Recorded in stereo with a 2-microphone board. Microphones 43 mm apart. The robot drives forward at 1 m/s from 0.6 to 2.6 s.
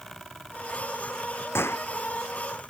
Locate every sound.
1.6 s a gunshot: 70° left (ahead or behind); by 1.9 s 75° left (ahead or behind)